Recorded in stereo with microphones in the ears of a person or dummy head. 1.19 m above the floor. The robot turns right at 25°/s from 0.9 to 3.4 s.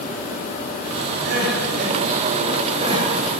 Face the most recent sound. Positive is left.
turn(degrees=-15)  # may be behind; listen again after turning